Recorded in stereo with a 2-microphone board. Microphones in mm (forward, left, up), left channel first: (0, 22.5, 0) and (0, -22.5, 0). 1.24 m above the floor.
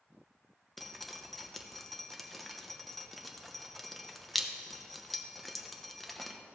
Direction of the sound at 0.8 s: Centre (ahead or behind).